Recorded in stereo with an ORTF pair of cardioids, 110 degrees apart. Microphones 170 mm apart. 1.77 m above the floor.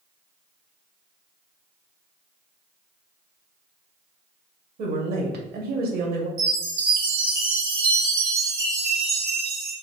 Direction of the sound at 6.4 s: 60° right.